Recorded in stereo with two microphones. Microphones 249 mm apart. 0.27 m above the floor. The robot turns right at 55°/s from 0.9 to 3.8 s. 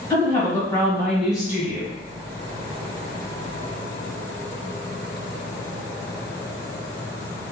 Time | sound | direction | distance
0.1 | a woman speaking | 160° left | 1.4 m